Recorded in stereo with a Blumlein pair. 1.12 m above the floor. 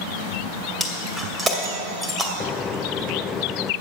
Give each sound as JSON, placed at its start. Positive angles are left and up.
{"t": 0.8, "sound": "breaking glass", "azimuth_deg": -10, "distance_m": 2.0}
{"t": 2.4, "sound": "a microwave", "azimuth_deg": 20, "distance_m": 0.5}